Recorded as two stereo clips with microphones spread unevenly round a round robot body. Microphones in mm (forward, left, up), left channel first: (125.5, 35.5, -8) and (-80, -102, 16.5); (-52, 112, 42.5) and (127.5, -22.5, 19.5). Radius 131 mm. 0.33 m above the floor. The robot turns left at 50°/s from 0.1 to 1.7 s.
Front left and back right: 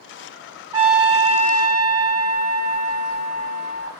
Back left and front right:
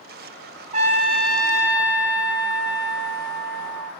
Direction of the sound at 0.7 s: 60° right.